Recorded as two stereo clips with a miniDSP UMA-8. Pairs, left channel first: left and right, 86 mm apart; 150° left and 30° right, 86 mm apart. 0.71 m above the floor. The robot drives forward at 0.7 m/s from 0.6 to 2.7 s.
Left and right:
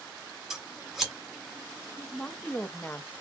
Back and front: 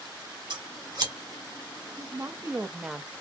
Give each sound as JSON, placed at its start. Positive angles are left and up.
{"t": 0.5, "sound": "scissors", "azimuth_deg": -5, "distance_m": 2.5}
{"t": 2.0, "sound": "a woman speaking", "azimuth_deg": 15, "distance_m": 0.8}